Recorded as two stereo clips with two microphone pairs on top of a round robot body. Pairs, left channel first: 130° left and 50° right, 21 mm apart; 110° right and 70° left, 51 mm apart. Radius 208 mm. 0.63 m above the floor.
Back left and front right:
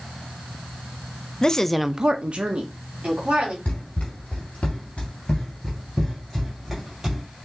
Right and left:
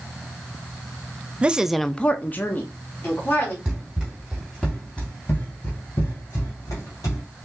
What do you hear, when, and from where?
1.4 s a woman speaking: 110° left, 0.7 m; by 3.5 s 60° right, 1.6 m
3.6 s running footsteps: 145° left, 1.6 m; by 7.2 s 110° right, 1.6 m